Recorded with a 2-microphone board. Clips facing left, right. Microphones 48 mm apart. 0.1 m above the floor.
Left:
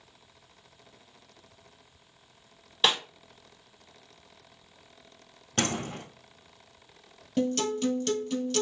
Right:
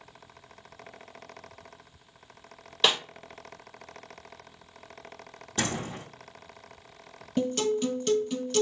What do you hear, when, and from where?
2.8 s a snare drum: 5° left (ahead or behind), 1.2 m
5.6 s a door slam: 60° left (ahead or behind), 1.7 m
7.4 s a guitar: 5° right (ahead or behind), 1.1 m